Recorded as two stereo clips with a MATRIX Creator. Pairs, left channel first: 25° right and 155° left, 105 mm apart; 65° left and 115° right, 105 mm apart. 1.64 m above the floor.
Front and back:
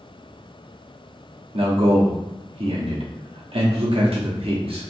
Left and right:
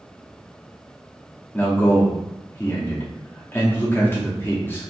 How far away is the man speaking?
About 0.7 m.